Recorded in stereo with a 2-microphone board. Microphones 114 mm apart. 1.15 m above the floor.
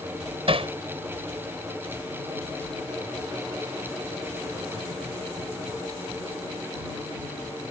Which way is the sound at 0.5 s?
55° right (ahead or behind).